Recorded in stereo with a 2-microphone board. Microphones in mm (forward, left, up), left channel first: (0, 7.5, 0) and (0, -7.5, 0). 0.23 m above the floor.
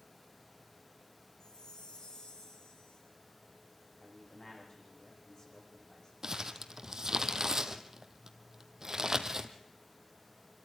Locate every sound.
1.4 s a chime: 65° left (ahead or behind), 4 m
4.0 s a man speaking: 50° left (ahead or behind), 10 m
6.2 s crumpling: 30° right (ahead or behind), 1.2 m